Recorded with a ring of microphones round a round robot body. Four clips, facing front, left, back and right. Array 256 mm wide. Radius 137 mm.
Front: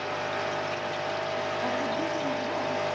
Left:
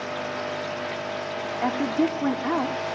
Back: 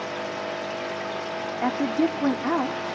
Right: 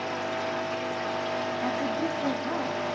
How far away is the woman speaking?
About 3 m.